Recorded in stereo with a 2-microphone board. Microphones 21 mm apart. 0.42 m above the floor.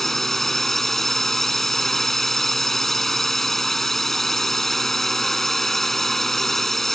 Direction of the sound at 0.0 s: 15° left (ahead or behind).